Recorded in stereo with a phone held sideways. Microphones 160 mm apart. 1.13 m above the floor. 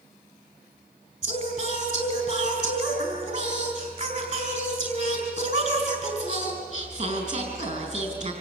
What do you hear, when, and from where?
1.2 s singing: 50° right (ahead or behind), 5 m